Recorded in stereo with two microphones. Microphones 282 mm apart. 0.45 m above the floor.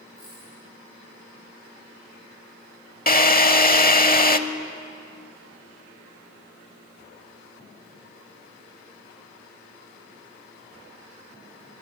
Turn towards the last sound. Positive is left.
turn(degrees=30)  # may be behind; listen again after turning